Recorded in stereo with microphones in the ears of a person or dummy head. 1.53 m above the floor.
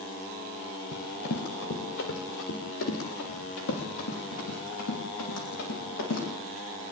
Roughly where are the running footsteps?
Left.